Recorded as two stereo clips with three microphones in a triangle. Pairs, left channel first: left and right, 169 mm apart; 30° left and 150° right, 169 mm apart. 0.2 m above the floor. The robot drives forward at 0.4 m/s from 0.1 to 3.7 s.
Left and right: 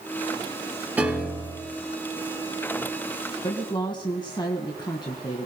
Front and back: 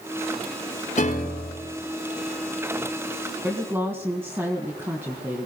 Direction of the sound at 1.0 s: 10° right.